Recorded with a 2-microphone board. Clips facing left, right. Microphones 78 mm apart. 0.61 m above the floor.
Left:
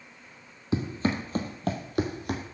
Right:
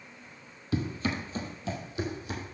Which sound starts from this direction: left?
Running footsteps, at 0.7 s.